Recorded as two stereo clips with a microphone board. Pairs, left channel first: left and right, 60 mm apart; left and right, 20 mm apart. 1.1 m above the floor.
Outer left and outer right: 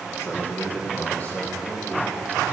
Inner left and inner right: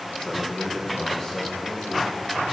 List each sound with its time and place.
0.2 s a man speaking: 50° left (ahead or behind), 1.1 m; by 2.5 s 25° left (ahead or behind), 3.5 m